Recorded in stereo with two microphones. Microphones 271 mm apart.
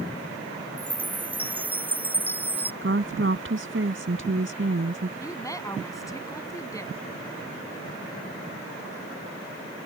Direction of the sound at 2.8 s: 50° right (ahead or behind).